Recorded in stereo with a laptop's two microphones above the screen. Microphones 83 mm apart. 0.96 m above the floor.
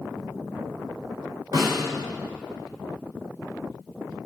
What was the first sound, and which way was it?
A snare drum, 60° right (ahead or behind).